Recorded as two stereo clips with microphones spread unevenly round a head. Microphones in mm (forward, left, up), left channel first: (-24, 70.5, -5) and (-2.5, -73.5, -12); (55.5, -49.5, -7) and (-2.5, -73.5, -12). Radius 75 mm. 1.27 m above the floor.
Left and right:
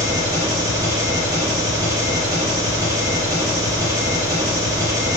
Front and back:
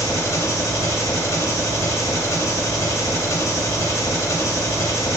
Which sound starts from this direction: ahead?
An engine running, at 0.0 s.